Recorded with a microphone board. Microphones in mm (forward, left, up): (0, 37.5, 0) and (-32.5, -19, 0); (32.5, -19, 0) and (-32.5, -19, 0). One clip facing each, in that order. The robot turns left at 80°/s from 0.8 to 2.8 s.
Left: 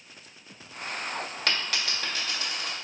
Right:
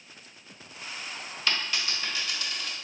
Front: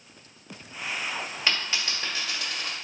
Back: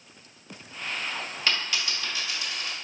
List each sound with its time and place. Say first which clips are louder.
1.5 s a dropped coin: right 1 dB, even; 75° left, 1.5 m; by 2.7 s 25° right, 1.5 m